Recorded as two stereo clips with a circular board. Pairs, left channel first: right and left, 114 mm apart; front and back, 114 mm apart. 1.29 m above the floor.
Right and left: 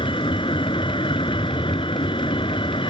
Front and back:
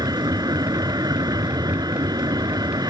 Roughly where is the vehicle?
Behind right.